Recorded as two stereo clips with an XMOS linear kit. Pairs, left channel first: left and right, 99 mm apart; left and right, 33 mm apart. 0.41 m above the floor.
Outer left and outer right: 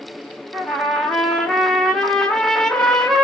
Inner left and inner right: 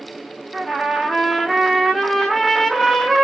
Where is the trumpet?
5° left (ahead or behind), 0.7 m.